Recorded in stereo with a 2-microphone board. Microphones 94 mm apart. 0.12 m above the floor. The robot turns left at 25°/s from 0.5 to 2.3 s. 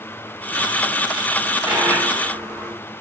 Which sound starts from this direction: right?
A dropped coin, at 1.7 s.